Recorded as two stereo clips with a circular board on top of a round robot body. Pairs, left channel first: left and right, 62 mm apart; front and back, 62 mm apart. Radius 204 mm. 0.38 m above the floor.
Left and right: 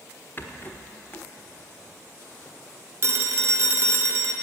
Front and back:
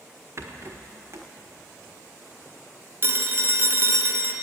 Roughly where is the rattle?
Behind left.